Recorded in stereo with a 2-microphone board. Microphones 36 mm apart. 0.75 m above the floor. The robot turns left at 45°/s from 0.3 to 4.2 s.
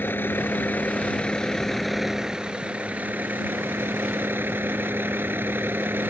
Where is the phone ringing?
I don't hear a phone ringing.